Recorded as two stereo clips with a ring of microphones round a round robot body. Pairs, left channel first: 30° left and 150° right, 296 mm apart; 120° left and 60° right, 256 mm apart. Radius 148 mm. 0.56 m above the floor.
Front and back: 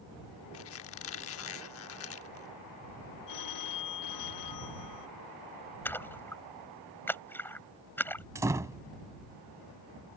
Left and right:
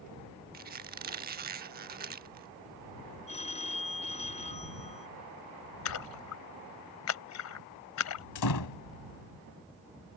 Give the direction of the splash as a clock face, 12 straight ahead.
8 o'clock.